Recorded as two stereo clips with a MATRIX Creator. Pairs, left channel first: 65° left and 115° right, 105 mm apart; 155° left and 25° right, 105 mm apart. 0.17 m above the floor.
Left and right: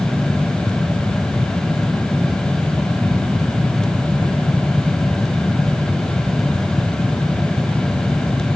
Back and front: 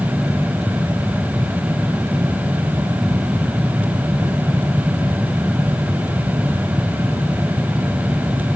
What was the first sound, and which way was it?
Only background noise.